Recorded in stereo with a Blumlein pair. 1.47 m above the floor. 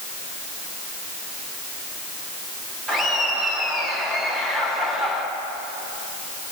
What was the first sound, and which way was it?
Laughter, 15° right.